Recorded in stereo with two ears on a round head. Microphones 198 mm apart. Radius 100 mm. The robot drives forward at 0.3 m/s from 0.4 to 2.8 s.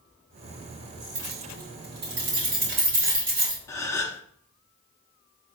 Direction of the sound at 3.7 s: 15° left (ahead or behind).